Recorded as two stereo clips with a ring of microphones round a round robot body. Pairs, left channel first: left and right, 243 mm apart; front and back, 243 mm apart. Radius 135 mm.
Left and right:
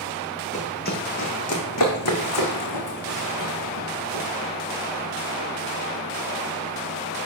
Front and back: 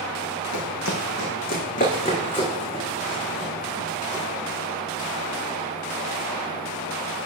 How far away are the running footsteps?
About 1.0 m.